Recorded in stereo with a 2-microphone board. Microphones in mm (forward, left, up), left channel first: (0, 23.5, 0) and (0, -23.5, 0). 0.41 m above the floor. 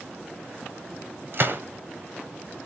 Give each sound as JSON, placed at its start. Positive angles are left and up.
{"t": 1.3, "sound": "a gunshot", "side_deg": -50, "distance_m": 1.7}